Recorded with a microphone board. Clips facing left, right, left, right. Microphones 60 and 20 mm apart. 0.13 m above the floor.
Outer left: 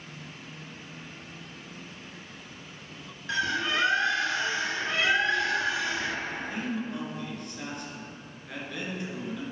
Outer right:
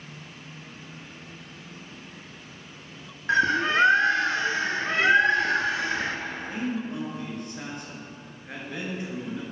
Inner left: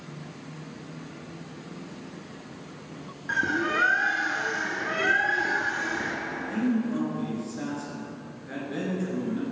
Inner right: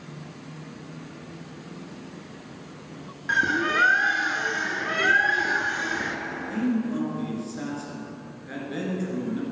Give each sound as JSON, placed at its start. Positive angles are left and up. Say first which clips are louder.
{"t": 3.3, "sound": "a bird", "louder": "outer right 6 dB, inner right 3 dB", "side_deg": -40, "distance_m": 0.7}
{"t": 6.3, "sound": "a man speaking", "louder": "outer right 2 dB, inner left 1 dB", "side_deg": -25, "distance_m": 2.5}